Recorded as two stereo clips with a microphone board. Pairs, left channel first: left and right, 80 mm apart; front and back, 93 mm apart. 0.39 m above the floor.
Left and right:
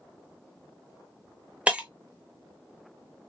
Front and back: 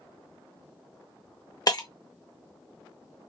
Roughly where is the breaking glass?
Ahead.